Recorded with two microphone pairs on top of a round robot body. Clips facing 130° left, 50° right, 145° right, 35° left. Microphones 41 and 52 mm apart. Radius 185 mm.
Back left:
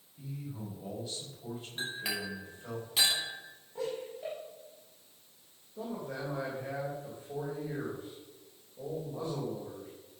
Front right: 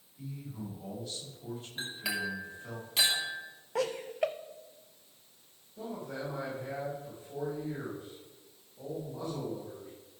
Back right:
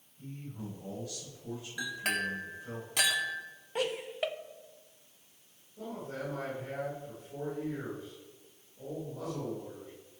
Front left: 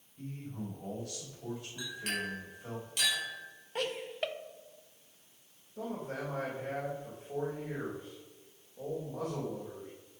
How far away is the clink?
About 2.5 m.